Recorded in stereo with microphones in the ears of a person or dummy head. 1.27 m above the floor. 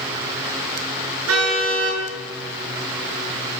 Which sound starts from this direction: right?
A car horn, at 1.3 s.